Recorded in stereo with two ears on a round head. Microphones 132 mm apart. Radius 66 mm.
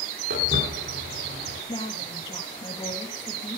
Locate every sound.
0.3 s footsteps: 75° right (ahead or behind), 9 m
1.7 s a woman speaking: 30° left (ahead or behind), 2.5 m